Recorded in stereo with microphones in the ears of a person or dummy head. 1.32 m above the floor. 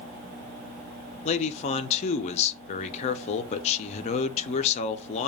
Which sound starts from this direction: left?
A man speaking, at 1.2 s.